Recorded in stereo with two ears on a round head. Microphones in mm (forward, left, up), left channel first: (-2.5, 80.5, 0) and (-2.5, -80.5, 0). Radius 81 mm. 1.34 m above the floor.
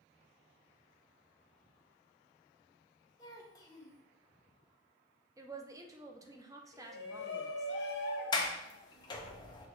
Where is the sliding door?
25° left (ahead or behind), 0.6 m.